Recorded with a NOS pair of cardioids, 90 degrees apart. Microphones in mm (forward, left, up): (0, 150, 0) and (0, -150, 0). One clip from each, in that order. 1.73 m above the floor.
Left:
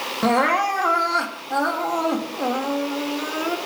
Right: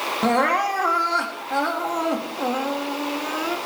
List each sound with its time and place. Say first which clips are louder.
0.2 s crying: left 1 dB; 10° left, 3.5 m